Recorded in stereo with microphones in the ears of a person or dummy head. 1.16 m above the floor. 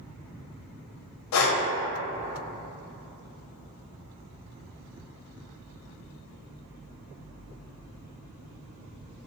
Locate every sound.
1.3 s breathing: 80° left, 0.5 m